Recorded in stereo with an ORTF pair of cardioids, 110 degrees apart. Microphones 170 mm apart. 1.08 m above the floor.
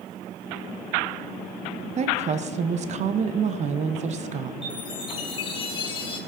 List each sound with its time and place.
2.0 s a woman speaking: 45° right, 0.6 m
4.6 s a chime: 30° left, 1.7 m